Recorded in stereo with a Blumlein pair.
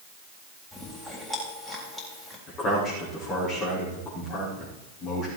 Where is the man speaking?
35° left, 5 m.